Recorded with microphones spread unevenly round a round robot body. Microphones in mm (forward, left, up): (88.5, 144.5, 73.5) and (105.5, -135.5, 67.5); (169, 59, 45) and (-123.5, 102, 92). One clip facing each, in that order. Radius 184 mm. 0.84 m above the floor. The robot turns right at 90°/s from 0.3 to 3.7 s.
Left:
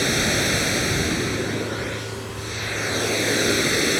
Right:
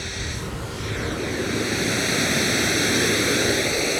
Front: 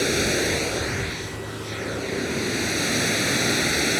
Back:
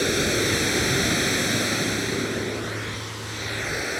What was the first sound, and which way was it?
Running water, 80° left.